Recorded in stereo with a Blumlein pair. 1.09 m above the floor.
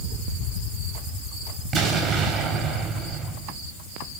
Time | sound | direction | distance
1.7 | an explosion | 30° right | 4 m